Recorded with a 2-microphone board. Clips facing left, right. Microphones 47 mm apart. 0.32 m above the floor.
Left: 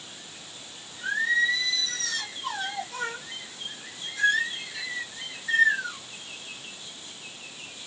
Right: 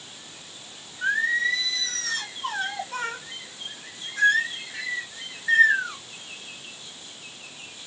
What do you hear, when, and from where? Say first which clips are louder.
1.0 s singing: right 1 dB; 45° right (ahead or behind), 1.9 m